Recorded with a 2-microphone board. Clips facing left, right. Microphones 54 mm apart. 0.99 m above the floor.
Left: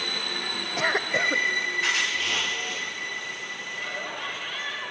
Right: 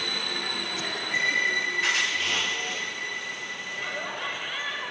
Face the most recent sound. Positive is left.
turn(degrees=-10)  # may be behind; listen again after turning